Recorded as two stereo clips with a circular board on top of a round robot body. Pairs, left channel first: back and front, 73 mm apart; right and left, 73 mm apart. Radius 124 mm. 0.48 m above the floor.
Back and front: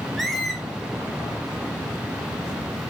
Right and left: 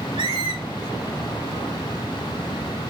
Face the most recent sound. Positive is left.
turn(degrees=90)